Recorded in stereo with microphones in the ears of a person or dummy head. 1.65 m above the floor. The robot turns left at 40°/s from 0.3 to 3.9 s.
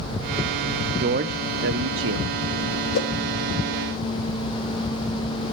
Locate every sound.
1.0 s a man speaking: 60° right, 0.8 m; by 2.3 s 110° right, 0.8 m
2.9 s a whoosh: 60° left (ahead or behind), 2.5 m; by 3.1 s 55° left (ahead or behind), 2.5 m